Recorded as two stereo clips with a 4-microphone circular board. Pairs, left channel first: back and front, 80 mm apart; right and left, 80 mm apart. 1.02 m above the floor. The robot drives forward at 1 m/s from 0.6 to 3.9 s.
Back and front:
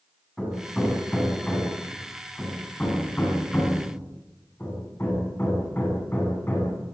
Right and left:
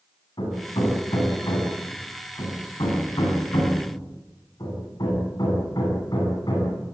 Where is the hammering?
95° right, 8.5 m; by 6.8 s 115° right, 9.5 m.